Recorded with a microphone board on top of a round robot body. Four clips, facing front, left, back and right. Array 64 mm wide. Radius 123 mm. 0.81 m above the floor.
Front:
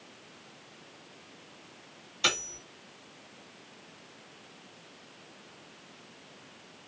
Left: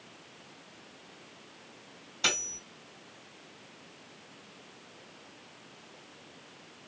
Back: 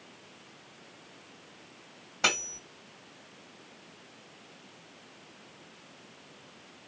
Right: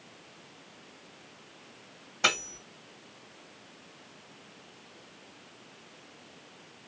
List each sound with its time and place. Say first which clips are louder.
2.2 s cutlery clinking: right 5 dB, back 2 dB; 145° right, 1.8 m